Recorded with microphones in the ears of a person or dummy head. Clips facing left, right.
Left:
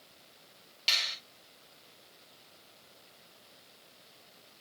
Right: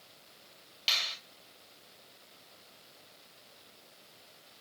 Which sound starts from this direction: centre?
A finger snap, at 0.9 s.